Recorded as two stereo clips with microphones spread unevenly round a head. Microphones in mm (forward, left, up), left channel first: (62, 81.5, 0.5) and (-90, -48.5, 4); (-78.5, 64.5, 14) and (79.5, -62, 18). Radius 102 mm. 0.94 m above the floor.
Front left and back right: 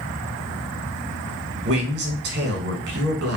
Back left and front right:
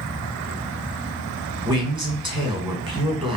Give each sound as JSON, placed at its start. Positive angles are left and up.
{"t": 1.6, "sound": "a man speaking", "azimuth_deg": -105, "distance_m": 1.4}